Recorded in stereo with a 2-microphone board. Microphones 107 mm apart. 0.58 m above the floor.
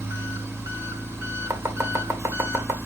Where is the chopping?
25° right (ahead or behind), 2 m.